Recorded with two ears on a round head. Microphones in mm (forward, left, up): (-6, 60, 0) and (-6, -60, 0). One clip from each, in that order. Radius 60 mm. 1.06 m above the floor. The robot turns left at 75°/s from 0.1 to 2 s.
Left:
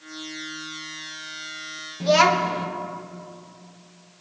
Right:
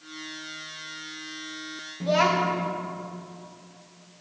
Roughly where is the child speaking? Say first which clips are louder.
Left 5 dB; left.